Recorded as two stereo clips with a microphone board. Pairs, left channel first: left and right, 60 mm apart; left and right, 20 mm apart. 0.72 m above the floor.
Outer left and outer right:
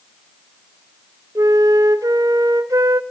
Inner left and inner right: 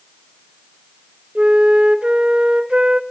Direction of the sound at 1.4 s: 80° right.